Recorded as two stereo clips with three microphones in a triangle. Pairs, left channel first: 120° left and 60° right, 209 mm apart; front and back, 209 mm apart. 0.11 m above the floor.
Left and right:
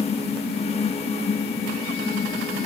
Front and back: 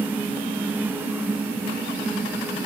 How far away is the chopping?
I don't hear chopping.